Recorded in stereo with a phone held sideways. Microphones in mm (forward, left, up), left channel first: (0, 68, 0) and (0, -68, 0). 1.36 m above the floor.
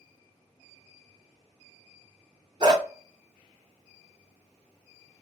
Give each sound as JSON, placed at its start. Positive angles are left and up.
{"t": 2.6, "sound": "a dog barking", "side_deg": -35, "distance_m": 1.2}